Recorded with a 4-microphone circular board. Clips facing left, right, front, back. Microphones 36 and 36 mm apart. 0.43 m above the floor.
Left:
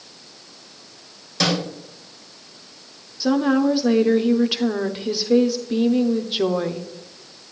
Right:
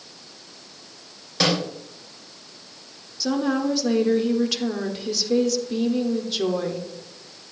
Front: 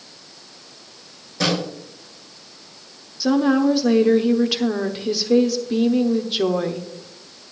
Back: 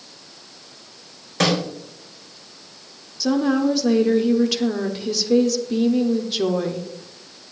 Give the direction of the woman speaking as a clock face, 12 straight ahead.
10 o'clock.